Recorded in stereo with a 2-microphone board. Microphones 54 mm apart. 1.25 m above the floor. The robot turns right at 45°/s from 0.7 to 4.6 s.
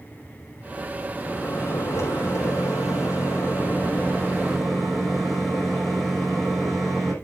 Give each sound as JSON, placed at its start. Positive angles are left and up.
{"t": 1.2, "sound": "a microwave", "azimuth_deg": 25, "distance_m": 5.5}